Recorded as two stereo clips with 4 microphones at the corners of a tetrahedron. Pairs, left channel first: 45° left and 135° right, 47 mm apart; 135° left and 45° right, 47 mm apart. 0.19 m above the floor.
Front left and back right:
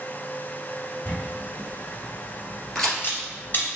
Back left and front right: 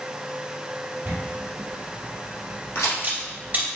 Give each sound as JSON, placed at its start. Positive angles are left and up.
{"t": 1.1, "sound": "a camera shutter", "azimuth_deg": 10, "distance_m": 2.0}
{"t": 2.8, "sound": "a crack", "azimuth_deg": 125, "distance_m": 2.0}